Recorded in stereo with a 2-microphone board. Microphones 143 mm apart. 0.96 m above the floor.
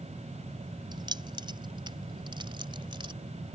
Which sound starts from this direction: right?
Keys jangling, at 0.9 s.